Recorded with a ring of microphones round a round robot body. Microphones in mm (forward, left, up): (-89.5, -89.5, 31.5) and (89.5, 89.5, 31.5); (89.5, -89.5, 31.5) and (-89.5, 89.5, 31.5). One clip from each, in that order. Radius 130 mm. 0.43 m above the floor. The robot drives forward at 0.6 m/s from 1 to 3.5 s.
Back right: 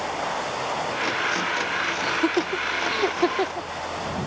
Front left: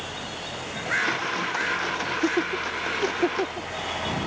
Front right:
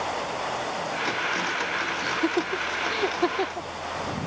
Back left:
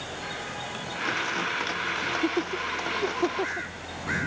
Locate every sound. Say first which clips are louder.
2.0 s laughter: back right 2 dB, front right 2 dB; 100° right